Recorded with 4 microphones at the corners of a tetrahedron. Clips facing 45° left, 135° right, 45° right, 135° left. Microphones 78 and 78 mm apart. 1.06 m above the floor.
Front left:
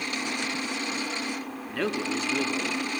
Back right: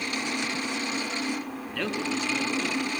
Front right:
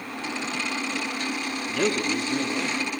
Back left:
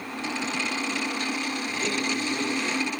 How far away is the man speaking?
About 2 m.